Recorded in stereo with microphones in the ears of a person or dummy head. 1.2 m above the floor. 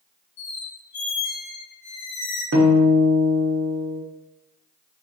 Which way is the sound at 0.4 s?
45° left (ahead or behind).